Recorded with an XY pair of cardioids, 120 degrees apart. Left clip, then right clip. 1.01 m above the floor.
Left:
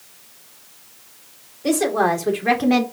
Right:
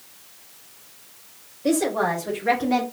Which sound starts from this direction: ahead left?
A woman speaking, at 1.6 s.